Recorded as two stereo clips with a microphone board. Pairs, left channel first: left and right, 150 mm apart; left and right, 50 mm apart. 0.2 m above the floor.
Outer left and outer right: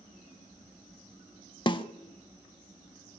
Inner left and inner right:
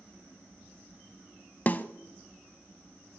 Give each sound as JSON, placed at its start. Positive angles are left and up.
{"t": 1.7, "sound": "a snare drum", "side_deg": 35, "distance_m": 0.5}